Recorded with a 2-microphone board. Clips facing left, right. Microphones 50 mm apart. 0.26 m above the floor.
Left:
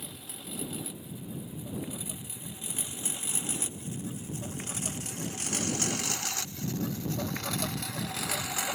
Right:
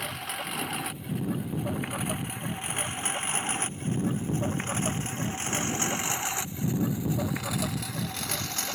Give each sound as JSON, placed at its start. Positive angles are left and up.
{"t": 0.0, "sound": "a lawn mower", "side_deg": -65}